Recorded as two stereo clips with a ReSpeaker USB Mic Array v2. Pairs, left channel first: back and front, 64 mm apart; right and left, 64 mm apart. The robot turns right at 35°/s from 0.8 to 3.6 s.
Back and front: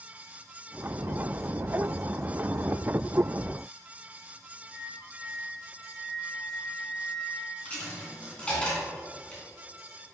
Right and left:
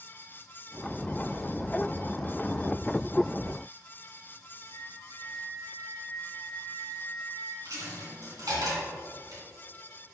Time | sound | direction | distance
4.7 | a flute | 95° right | 2.5 m
7.7 | a dropped coin | 110° left | 2.5 m